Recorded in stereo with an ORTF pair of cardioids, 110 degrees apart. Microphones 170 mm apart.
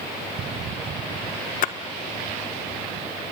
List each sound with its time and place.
1.6 s a splash: 55° left, 1.2 m